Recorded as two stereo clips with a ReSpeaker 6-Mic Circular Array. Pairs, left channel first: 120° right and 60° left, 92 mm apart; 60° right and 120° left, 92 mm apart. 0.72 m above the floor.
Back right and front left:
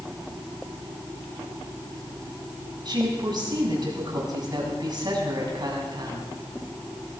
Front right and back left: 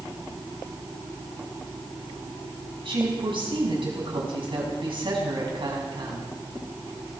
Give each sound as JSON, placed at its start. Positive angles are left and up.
{"t": 2.9, "sound": "a woman speaking", "azimuth_deg": 95, "distance_m": 6.5}